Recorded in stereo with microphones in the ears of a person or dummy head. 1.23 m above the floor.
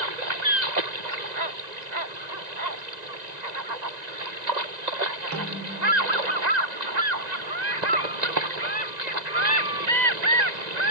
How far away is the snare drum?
About 3 m.